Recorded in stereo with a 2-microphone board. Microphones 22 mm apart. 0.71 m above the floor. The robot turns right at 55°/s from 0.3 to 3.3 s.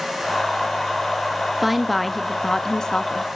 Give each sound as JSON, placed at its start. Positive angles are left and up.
{"t": 1.6, "sound": "a woman speaking", "azimuth_deg": -15, "distance_m": 0.8}